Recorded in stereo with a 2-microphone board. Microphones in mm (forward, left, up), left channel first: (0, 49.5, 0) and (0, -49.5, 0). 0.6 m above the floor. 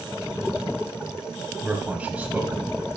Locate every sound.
1.6 s a man speaking: 15° right (ahead or behind), 3.5 m